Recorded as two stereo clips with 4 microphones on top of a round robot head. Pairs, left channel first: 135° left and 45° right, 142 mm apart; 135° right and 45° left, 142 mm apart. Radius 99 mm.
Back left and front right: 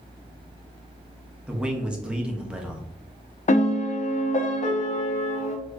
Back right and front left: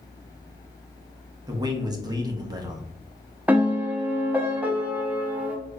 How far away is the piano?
About 0.6 m.